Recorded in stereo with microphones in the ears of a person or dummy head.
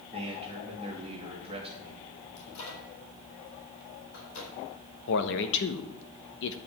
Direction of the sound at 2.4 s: 85° left.